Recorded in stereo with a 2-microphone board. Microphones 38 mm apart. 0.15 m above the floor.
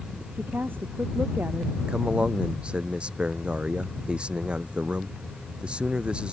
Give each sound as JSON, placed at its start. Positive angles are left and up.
{"t": 0.3, "sound": "a woman speaking", "side_deg": -65}
{"t": 1.9, "sound": "a man speaking", "side_deg": -30}